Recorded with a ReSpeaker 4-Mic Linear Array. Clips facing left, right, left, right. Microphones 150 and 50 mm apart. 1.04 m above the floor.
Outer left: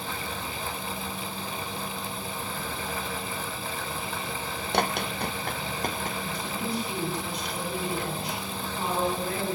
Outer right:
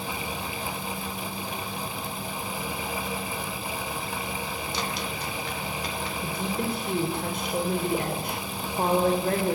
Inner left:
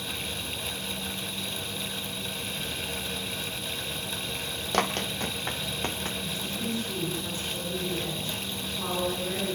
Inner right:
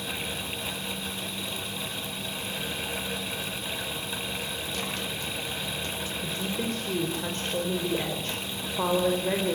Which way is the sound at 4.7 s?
60° left (ahead or behind).